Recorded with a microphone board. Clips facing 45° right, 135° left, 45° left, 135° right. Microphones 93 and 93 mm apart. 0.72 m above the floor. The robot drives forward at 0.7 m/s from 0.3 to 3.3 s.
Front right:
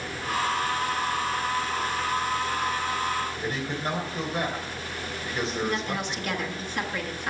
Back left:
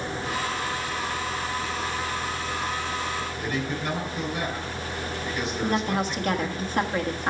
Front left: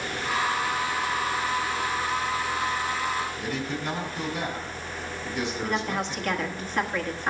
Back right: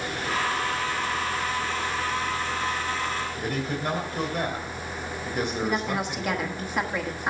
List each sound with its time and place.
3.4 s a man speaking: 100° right, 3 m
5.6 s a woman speaking: 150° left, 1.3 m